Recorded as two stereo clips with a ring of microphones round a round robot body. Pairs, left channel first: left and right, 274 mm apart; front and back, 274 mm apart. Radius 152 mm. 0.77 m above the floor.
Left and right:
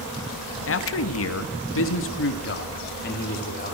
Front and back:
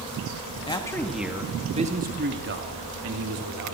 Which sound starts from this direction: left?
A man speaking, at 0.7 s.